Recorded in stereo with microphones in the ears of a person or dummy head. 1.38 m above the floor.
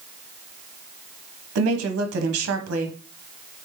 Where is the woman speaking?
80° right, 0.8 m.